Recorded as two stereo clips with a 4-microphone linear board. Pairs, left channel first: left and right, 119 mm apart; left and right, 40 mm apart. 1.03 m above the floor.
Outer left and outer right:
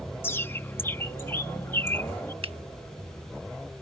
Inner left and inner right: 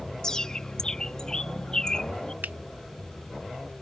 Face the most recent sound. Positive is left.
turn(degrees=-55)  # may be behind; listen again after turning